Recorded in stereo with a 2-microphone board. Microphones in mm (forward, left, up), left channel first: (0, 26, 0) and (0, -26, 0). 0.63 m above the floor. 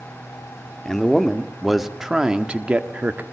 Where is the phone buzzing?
I don't hear a phone buzzing.